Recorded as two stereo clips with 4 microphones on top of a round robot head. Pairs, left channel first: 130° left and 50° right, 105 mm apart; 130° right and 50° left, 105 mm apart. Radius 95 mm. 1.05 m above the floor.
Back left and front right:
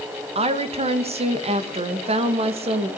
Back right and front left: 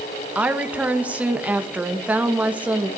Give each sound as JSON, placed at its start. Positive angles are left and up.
{"t": 0.3, "sound": "a woman speaking", "azimuth_deg": -25, "distance_m": 1.4}